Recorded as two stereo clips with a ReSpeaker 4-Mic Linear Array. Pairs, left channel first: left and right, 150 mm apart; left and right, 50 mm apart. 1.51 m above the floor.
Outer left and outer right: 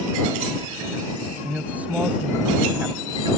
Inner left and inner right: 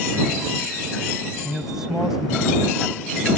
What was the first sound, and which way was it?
A man speaking, 10° right (ahead or behind).